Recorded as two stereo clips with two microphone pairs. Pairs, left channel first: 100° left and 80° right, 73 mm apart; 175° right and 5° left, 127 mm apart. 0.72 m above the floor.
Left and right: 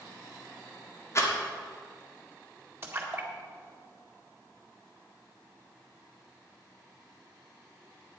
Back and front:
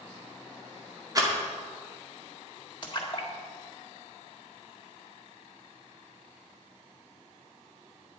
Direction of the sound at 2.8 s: 130° right.